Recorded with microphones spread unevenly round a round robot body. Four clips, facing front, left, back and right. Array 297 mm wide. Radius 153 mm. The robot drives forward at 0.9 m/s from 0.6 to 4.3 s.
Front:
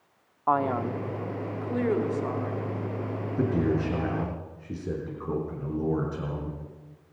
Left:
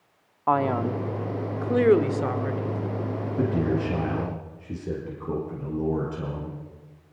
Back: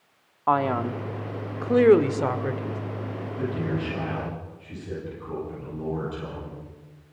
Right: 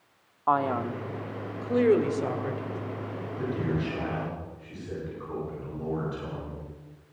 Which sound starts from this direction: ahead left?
A man speaking, at 3.4 s.